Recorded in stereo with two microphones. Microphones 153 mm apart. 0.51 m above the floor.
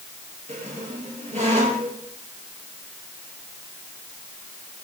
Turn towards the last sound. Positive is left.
turn(degrees=-50)  # may be behind; listen again after turning